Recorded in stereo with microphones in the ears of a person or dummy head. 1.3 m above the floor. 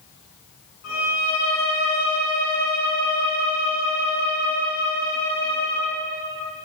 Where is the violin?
65° left (ahead or behind), 3.5 m.